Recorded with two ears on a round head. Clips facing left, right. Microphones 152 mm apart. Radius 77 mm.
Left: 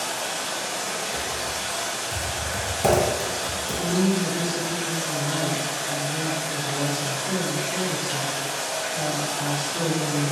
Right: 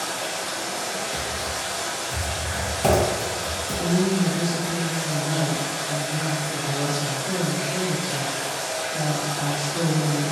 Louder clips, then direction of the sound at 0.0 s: Right 1 dB; 75° left (ahead or behind).